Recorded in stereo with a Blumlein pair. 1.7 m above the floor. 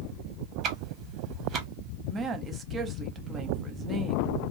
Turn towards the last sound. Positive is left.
turn(degrees=-20)